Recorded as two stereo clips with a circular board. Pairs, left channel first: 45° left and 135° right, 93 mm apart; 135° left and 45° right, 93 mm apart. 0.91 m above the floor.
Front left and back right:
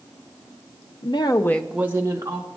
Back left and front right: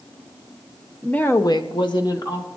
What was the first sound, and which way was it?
A woman speaking, 55° left.